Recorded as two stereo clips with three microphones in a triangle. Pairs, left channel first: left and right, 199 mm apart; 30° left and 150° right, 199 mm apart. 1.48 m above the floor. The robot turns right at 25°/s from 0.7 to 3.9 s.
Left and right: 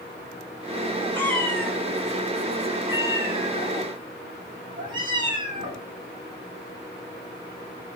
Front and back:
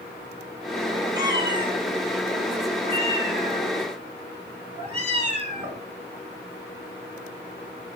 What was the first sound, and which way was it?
A cat meowing, 160° left.